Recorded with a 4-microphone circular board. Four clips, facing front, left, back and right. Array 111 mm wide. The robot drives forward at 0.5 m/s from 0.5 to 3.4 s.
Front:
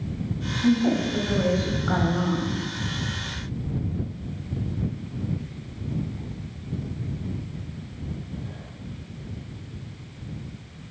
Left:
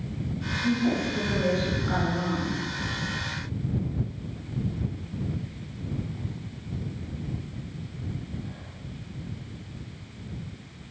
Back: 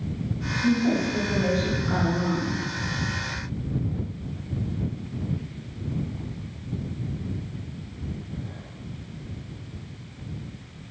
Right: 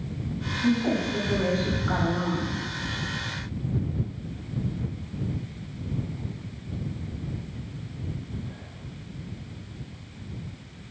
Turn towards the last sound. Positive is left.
turn(degrees=-25)